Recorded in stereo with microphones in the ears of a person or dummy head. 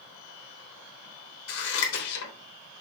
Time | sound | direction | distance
1.5 | scissors | 80° left | 3.5 m